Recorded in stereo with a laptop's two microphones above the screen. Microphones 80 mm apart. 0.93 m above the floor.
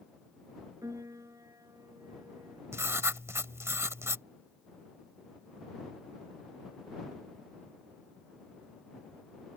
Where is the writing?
35° right (ahead or behind).